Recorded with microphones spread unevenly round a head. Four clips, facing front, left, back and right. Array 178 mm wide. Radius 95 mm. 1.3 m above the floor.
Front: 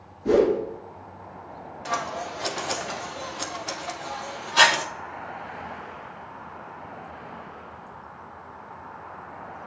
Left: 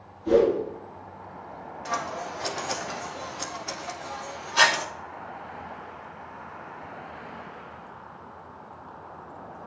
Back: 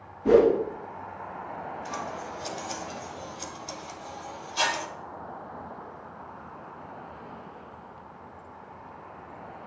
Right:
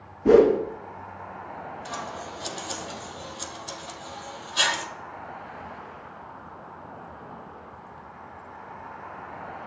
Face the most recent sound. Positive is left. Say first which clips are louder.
# left 8 dB, front 5 dB
turn(degrees=20)